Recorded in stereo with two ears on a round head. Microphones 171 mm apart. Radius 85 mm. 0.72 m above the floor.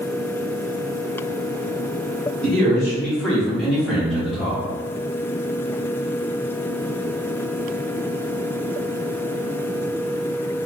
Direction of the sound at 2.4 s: 5° left (ahead or behind).